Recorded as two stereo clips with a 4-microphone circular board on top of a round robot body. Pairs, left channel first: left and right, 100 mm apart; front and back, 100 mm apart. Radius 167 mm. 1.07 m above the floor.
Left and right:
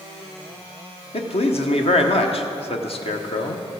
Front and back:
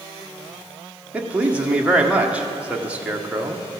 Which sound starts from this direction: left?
A man speaking, at 1.1 s.